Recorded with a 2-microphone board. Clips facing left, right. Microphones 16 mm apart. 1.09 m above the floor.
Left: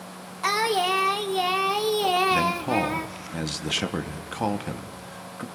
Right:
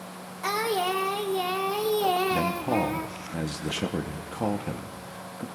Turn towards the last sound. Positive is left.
turn(degrees=50)  # may be behind; listen again after turning